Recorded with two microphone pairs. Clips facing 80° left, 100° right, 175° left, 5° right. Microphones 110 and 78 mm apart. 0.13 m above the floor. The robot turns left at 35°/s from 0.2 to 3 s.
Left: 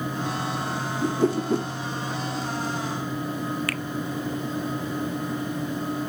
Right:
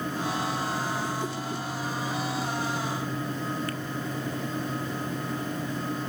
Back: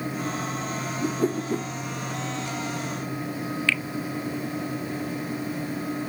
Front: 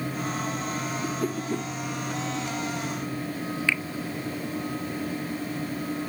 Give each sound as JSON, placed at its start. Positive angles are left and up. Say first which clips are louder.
{"t": 1.0, "sound": "a whoosh", "louder": "left 8 dB, back 7 dB", "azimuth_deg": 120}
{"t": 3.7, "sound": "a finger snap", "louder": "left 2 dB, even", "azimuth_deg": 70}